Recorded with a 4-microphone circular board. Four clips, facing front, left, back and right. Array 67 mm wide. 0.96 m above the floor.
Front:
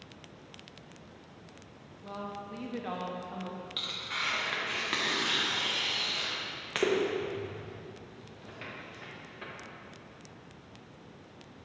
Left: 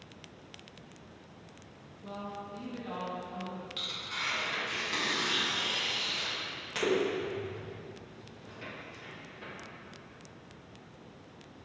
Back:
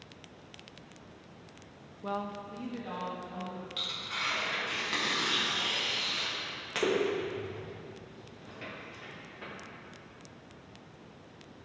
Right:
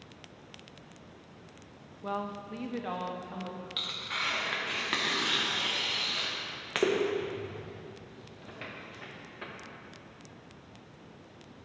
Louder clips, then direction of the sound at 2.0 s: Right 6 dB, back 4 dB; 130° right.